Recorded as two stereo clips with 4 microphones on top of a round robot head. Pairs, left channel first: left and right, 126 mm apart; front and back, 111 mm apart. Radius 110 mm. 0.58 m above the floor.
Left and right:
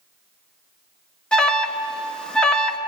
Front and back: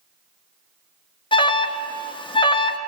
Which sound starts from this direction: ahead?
An alarm, at 1.3 s.